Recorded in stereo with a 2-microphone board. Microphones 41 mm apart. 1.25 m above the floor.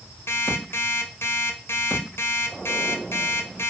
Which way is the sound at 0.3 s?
75° left (ahead or behind).